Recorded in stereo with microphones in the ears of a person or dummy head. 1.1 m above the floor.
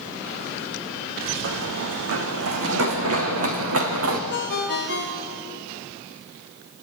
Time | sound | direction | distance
1.4 | running footsteps | 60° right (ahead or behind) | 2.5 m
4.3 | a ringtone | 55° left (ahead or behind) | 1.6 m